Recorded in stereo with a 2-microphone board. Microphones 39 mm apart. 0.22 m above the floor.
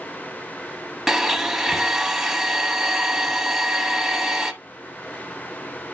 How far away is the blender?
About 1.0 m.